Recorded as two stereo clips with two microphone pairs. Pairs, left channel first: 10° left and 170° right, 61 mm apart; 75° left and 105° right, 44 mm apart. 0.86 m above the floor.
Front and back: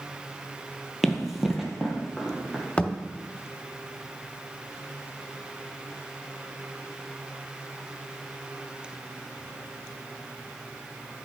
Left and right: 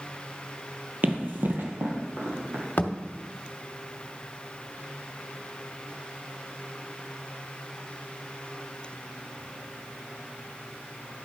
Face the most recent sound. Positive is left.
turn(degrees=70)